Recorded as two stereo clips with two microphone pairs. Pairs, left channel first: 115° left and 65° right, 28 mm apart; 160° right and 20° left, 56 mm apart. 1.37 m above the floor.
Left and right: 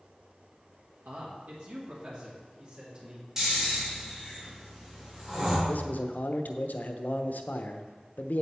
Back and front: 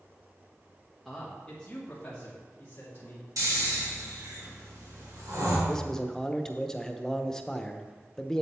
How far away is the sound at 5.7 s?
About 0.8 m.